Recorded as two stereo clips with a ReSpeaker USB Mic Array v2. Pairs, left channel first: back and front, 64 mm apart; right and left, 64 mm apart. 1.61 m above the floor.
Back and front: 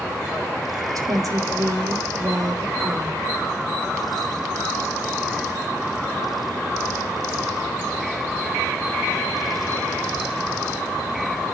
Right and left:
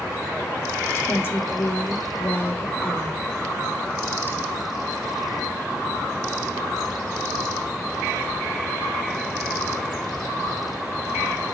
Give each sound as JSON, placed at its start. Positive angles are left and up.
{"t": 0.9, "sound": "a woman speaking", "azimuth_deg": -35, "distance_m": 0.9}